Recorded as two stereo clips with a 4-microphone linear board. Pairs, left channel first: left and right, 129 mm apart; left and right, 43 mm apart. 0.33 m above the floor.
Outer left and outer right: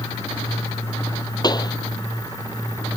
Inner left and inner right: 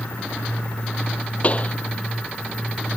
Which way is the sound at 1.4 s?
30° left (ahead or behind).